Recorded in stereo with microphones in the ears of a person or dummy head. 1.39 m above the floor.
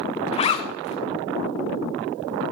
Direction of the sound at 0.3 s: 35° left (ahead or behind).